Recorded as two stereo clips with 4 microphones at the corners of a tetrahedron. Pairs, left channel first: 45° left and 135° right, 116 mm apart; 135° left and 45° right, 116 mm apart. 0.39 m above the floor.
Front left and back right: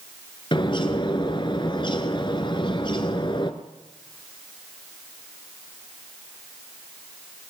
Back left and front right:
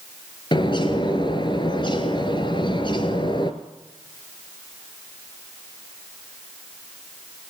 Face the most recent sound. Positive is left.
turn(degrees=90)